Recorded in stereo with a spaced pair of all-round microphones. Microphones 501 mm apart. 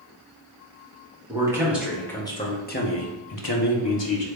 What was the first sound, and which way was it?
A man speaking, 10° right (ahead or behind).